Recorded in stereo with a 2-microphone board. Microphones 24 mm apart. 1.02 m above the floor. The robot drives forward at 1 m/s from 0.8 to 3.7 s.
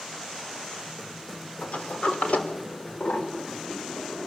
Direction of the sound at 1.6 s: 70° left (ahead or behind).